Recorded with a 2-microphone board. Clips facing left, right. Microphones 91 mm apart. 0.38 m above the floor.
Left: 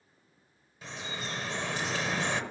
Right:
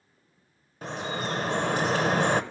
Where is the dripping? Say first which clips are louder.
Right 8 dB; 50° right (ahead or behind), 0.7 m.